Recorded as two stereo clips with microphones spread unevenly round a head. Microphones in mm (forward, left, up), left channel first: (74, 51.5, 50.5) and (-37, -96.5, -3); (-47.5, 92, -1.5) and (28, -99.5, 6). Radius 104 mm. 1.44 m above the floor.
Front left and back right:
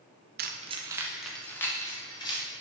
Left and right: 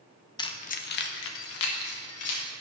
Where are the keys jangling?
Straight behind, 0.8 m; by 2.5 s 120° left, 1.9 m.